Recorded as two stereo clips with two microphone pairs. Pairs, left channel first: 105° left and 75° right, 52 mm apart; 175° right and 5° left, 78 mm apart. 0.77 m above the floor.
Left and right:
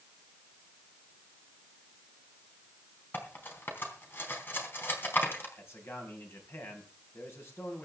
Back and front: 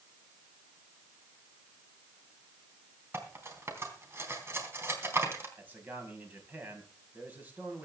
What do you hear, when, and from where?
3.1 s cutlery clinking: 60° left, 3.5 m
5.6 s a man speaking: 70° left, 4.5 m